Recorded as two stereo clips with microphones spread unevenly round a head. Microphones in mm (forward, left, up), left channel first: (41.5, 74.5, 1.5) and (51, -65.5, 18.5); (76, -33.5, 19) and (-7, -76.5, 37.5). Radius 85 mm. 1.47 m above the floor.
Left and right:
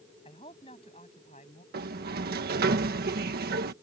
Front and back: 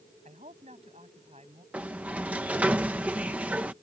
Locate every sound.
0.2 s a man speaking: 160° left; by 1.6 s 150° left
1.7 s a sliding door: 75° right